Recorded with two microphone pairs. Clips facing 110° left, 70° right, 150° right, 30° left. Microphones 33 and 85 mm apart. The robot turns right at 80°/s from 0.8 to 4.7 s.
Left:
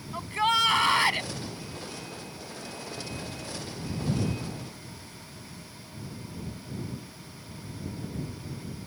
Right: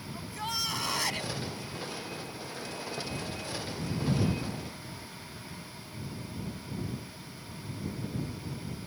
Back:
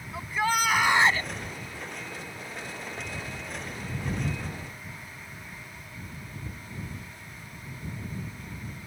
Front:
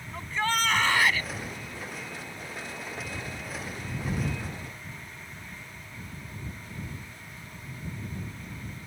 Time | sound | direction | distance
0.1 | a shout | 130° left | ?